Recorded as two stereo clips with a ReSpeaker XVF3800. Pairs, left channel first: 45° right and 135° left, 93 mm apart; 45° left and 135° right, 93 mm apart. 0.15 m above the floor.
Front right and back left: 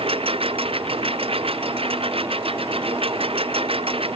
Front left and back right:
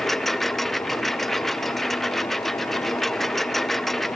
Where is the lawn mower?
130° left.